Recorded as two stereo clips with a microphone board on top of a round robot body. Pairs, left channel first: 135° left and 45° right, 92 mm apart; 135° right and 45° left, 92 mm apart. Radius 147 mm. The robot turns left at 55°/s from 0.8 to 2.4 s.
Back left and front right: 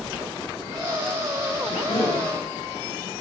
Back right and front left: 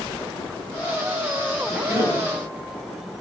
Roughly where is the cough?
Behind left.